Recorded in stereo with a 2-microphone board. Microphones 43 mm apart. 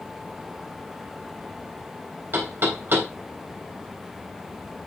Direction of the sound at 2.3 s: 50° right (ahead or behind).